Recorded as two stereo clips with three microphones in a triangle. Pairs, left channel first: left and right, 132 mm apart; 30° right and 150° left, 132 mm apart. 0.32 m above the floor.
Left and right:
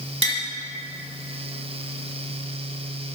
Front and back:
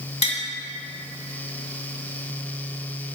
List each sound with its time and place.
0.2 s tapping: 60° right, 1.1 m